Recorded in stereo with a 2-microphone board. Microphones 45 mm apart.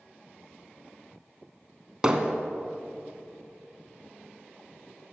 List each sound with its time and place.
2.0 s hammering: 15° right (ahead or behind), 1.0 m